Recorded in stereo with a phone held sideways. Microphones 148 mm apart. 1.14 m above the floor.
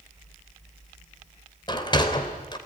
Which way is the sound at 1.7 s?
30° left (ahead or behind).